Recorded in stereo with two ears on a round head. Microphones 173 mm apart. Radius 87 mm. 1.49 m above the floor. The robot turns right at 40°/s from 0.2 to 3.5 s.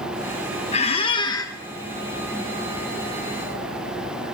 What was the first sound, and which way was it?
A squeak, 125° left.